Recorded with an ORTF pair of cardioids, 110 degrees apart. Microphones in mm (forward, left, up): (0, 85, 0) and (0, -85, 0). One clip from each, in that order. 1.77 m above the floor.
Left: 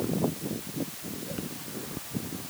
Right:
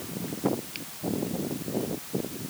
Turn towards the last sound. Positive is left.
No sound to turn to.